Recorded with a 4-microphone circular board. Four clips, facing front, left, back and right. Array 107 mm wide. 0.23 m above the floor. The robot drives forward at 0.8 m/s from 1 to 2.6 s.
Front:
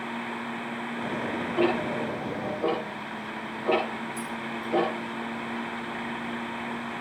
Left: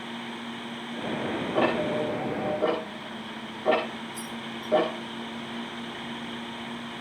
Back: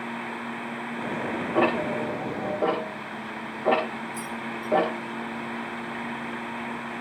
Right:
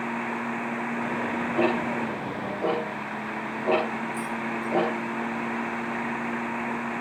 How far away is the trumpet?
I don't hear a trumpet.